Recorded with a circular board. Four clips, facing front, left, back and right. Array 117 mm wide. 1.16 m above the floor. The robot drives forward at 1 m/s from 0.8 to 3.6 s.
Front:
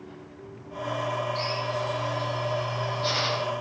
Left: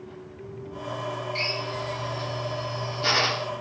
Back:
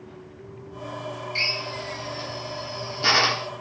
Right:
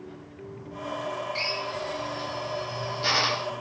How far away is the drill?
About 1.9 m.